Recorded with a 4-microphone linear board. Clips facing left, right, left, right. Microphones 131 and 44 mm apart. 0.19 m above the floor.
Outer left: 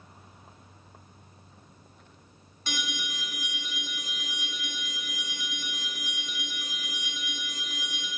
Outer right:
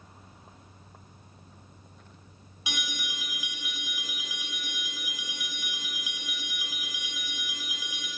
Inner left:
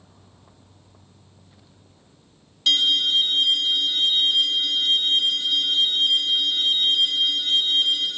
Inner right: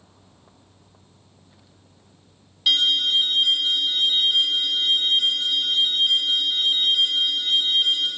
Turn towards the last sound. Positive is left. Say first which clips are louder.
# outer left 2 dB, even
turn(degrees=-10)  # may be behind; listen again after turning